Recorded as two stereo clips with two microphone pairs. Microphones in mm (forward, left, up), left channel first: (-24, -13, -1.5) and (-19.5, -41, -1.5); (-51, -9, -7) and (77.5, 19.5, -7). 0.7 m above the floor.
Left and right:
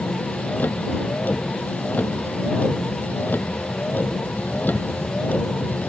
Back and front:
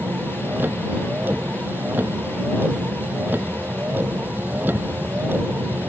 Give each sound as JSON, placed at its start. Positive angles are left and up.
{"t": 0.0, "sound": "a vehicle", "azimuth_deg": 90}